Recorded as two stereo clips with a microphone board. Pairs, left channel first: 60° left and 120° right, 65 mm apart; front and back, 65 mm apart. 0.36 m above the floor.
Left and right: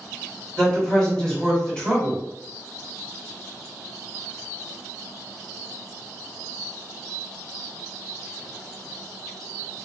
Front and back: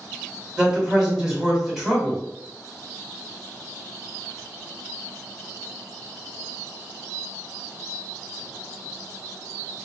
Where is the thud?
I don't hear a thud.